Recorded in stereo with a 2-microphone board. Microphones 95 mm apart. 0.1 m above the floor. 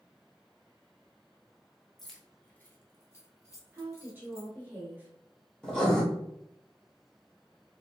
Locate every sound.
2.0 s keys jangling: 5° right (ahead or behind), 0.8 m; by 4.5 s 40° left (ahead or behind), 2 m
3.7 s a woman speaking: 20° right (ahead or behind), 1.4 m
5.6 s writing: 5° left (ahead or behind), 1.7 m